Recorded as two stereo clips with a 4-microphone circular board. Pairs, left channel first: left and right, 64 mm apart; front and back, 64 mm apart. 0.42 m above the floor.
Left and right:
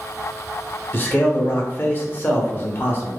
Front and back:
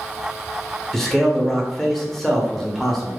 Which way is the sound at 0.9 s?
80° left.